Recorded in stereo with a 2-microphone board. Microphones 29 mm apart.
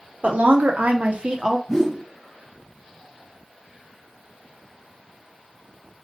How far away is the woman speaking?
About 1.2 m.